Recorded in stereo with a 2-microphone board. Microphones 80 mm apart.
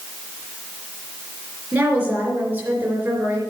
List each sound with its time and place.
1.7 s a woman speaking: 25° right (ahead or behind), 3.5 m